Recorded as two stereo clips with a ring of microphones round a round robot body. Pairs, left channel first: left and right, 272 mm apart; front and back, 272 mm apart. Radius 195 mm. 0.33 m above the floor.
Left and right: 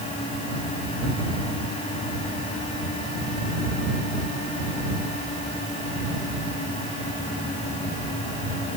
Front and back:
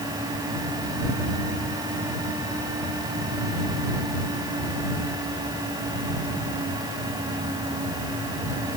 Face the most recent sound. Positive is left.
No sound to turn to.